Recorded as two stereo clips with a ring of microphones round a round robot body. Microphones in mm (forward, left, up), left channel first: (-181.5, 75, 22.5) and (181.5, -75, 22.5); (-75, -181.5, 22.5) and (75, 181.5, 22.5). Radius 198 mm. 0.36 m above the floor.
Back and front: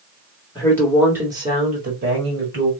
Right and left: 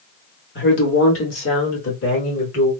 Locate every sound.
0.6 s a woman speaking: 135° right, 1.2 m; by 2.7 s 70° right, 1.7 m